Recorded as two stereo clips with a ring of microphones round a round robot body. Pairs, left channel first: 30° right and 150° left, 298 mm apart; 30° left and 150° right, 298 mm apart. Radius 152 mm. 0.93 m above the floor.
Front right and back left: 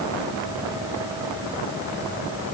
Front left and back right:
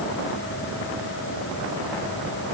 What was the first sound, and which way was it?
Only background noise.